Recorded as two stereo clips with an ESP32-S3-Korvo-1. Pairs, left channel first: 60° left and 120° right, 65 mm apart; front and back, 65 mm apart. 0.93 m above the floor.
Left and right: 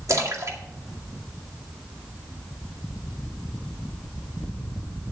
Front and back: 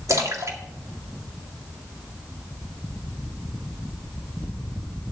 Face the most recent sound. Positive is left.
turn(degrees=-150)